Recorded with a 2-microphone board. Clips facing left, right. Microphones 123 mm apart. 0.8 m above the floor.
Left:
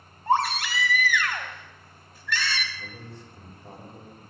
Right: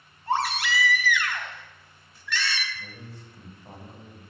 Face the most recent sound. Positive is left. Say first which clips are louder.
# left 2 dB
turn(degrees=65)  # may be behind; listen again after turning